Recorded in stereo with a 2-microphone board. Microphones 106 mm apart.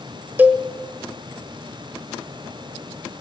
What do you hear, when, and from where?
0.4 s a cowbell: 20° right (ahead or behind), 1.6 m